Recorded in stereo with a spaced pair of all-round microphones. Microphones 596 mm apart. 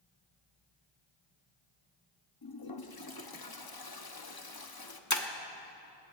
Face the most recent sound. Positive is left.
turn(degrees=30)  # may be behind; listen again after turning